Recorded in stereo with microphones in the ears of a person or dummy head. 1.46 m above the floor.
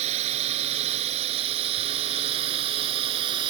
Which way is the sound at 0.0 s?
40° right (ahead or behind).